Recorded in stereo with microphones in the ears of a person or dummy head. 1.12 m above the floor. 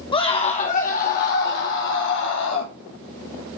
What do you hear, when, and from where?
0.1 s a scream: 25° left (ahead or behind), 2.5 m; by 2.7 s 70° left (ahead or behind), 3.5 m